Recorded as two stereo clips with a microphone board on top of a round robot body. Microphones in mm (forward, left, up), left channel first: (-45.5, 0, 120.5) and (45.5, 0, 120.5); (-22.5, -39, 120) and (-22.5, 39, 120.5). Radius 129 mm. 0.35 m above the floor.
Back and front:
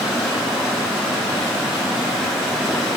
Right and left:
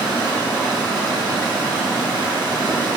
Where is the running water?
90° left, 1.2 m.